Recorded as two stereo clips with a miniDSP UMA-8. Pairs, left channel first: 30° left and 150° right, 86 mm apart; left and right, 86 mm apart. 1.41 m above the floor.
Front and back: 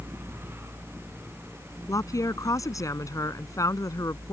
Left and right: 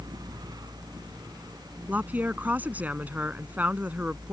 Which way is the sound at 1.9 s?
20° right.